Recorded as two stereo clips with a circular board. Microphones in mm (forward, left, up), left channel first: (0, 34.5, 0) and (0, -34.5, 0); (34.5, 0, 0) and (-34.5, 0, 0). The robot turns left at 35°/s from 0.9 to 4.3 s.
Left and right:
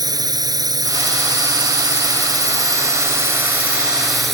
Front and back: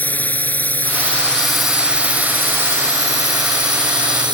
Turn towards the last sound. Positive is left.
turn(degrees=175)